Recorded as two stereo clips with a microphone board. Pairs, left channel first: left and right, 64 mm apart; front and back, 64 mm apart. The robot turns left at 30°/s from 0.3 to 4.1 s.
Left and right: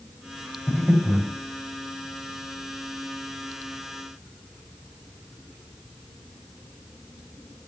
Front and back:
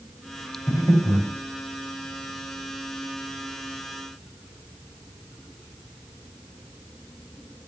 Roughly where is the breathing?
Ahead.